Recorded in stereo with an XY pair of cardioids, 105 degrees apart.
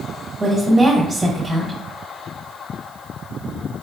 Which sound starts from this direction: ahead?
A woman speaking, at 0.4 s.